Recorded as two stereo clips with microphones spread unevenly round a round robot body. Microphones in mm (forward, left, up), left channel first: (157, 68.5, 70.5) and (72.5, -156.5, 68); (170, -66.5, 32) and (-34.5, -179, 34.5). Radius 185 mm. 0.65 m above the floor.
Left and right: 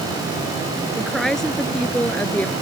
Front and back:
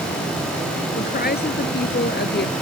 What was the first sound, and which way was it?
A woman speaking, 20° right.